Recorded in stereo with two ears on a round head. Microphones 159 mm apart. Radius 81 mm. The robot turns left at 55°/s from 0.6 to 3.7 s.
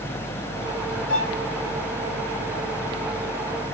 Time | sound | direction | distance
1.1 | a violin | 10° left (ahead or behind) | 1.9 m